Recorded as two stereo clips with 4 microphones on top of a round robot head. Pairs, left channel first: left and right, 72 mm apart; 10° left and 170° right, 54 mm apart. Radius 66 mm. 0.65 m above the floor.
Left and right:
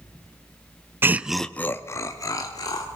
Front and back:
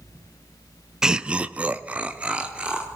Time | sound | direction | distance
1.0 | laughter | 100° right | 0.6 m